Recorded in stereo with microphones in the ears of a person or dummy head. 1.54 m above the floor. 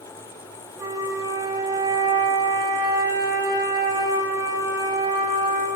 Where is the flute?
20° right (ahead or behind), 6 m.